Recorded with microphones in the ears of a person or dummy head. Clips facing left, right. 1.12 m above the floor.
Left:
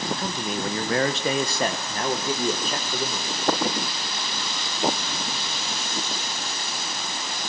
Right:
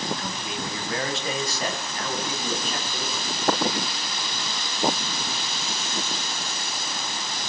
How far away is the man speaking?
About 1.0 m.